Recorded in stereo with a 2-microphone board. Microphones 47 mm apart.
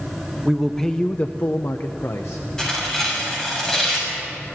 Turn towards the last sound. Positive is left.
turn(degrees=10)  # may be behind; listen again after turning